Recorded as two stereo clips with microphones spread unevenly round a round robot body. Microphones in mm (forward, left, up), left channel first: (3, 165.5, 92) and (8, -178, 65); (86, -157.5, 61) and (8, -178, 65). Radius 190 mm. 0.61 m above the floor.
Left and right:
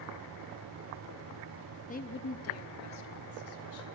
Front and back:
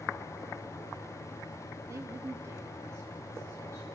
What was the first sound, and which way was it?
A woman speaking, 155° left.